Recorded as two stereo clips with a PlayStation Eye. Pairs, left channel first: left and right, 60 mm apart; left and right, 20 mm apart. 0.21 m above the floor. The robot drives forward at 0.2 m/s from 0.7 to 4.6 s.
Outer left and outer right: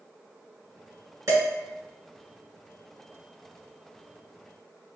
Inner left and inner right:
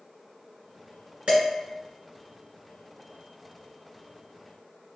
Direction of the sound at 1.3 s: 60° right (ahead or behind).